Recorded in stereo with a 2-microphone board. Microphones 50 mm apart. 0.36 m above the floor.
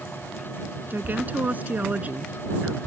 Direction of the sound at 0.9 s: 40° right (ahead or behind).